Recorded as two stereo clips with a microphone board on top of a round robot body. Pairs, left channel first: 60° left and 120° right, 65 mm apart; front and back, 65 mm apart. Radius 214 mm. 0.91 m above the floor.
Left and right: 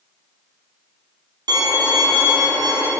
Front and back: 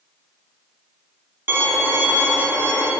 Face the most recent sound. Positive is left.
turn(degrees=-120)